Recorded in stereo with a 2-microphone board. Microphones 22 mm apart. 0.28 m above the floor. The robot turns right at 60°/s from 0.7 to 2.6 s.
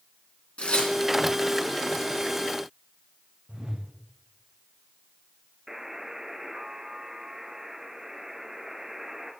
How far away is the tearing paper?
About 3 m.